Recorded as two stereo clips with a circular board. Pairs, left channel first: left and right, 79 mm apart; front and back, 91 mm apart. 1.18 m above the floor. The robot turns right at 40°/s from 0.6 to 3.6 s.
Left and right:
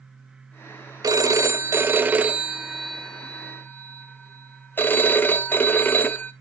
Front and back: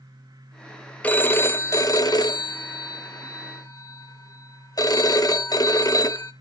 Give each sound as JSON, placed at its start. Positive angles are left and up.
{"t": 1.0, "sound": "a phone ringing", "azimuth_deg": -70, "distance_m": 0.6}